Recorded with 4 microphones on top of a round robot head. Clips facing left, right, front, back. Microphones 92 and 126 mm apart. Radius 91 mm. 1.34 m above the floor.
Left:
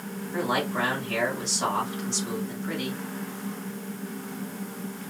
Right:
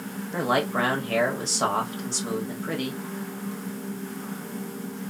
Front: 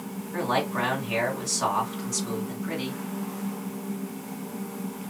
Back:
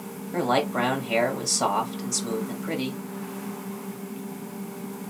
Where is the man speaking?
130° right, 1.0 m.